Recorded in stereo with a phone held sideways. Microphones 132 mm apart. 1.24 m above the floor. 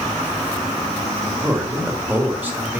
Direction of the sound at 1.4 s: 15° right (ahead or behind).